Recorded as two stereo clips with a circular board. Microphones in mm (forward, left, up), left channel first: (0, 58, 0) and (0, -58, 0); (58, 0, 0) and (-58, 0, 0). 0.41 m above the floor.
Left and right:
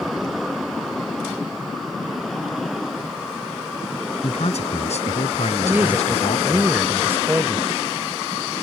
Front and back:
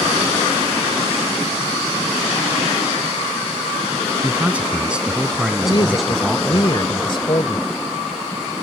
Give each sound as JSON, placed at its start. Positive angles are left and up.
{"t": 4.2, "sound": "a man speaking", "azimuth_deg": 105}
{"t": 5.6, "sound": "a woman speaking", "azimuth_deg": -25}